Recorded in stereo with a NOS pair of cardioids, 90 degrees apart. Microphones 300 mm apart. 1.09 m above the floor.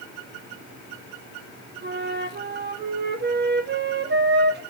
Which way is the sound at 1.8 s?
35° right.